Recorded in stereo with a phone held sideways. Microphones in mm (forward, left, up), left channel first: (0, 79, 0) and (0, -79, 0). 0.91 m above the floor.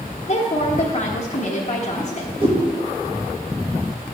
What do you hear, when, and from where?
0.3 s a woman speaking: 50° left (ahead or behind), 1.1 m
2.0 s a whoosh: 35° right (ahead or behind), 1.5 m